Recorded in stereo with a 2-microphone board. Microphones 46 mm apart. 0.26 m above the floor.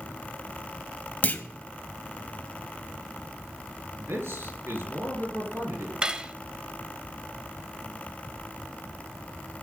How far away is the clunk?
About 0.9 m.